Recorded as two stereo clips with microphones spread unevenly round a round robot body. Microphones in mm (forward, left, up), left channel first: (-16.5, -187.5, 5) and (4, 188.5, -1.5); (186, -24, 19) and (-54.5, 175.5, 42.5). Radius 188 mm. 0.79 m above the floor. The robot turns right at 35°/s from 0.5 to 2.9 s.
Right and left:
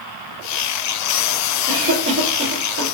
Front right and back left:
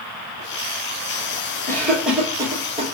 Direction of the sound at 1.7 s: 35° left.